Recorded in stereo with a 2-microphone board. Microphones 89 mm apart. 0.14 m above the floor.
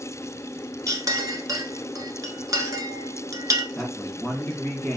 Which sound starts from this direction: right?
A clink, at 0.9 s.